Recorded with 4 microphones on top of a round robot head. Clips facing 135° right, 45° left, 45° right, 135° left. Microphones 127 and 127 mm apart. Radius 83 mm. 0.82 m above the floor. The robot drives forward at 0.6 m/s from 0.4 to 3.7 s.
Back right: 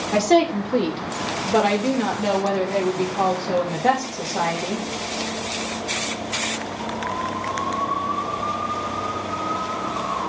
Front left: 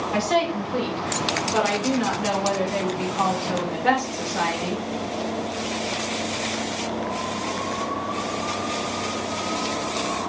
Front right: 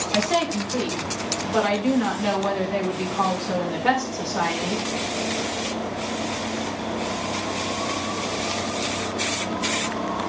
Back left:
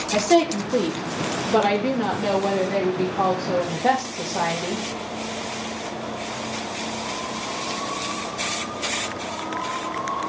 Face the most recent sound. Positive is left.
turn(degrees=180)